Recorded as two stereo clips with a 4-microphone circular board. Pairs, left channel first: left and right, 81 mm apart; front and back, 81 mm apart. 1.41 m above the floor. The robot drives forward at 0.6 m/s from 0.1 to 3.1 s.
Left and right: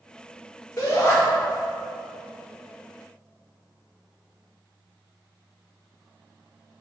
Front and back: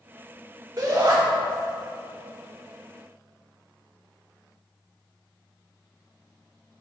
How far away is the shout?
About 1.2 m.